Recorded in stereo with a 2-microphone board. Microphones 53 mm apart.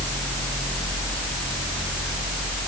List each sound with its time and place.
Only background noise.